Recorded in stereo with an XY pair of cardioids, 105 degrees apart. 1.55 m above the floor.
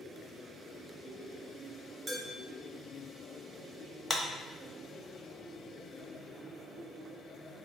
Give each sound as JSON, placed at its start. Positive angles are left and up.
{"t": 2.1, "sound": "dishes clattering", "azimuth_deg": -50, "distance_m": 1.7}
{"t": 4.1, "sound": "a clap", "azimuth_deg": 20, "distance_m": 0.6}